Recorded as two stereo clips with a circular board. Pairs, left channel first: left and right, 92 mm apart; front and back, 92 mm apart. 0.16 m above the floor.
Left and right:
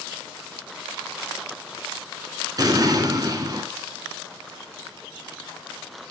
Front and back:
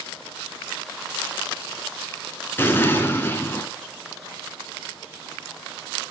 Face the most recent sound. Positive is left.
turn(degrees=-60)